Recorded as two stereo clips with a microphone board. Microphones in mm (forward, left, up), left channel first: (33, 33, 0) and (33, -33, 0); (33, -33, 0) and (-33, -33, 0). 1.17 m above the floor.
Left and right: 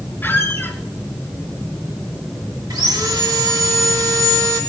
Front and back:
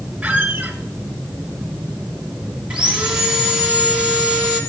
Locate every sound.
0.2 s a squeak: 125° left, 1.3 m
2.7 s sawing: 105° right, 2.0 m